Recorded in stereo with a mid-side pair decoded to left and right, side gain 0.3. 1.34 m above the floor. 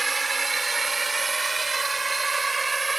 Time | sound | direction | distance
0.0 | a drone | 35° right | ?